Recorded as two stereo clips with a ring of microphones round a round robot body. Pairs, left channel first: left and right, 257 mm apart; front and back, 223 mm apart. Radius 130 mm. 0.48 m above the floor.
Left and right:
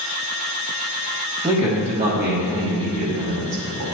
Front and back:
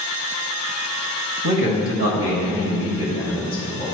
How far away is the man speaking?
About 2 m.